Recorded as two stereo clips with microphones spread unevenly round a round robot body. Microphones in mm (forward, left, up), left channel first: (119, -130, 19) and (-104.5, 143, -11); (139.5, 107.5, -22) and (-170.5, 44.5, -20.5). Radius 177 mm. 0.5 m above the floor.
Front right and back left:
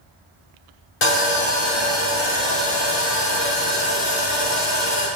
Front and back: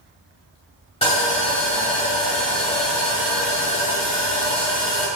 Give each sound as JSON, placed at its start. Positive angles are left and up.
{"t": 1.0, "sound": "sawing", "azimuth_deg": -65, "distance_m": 1.9}